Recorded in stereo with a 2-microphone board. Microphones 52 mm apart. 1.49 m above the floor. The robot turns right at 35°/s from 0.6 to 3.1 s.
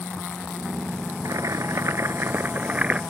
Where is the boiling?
80° right; by 3.0 s 20° right.